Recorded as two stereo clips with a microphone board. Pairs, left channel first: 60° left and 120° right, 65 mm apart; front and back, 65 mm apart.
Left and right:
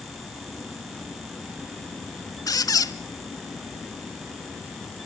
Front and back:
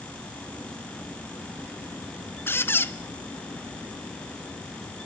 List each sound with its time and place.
2.5 s a squeak: 50° left, 0.7 m